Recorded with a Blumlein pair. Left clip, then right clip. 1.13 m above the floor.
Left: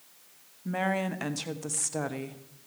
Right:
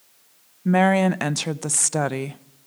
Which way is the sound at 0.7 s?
60° right.